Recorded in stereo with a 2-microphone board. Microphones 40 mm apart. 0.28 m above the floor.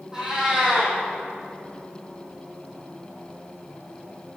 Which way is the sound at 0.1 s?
15° right (ahead or behind).